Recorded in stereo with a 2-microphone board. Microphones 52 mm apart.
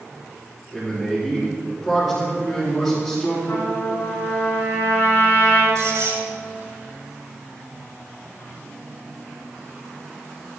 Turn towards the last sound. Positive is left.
turn(degrees=-75)  # may be behind; listen again after turning